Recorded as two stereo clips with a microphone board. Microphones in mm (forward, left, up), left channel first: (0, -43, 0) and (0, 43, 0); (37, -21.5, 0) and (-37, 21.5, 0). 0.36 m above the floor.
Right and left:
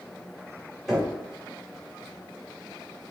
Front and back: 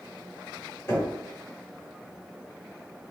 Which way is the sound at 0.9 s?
10° left.